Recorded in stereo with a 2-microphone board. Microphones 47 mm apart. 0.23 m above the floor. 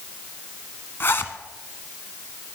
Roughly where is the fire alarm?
I don't hear a fire alarm.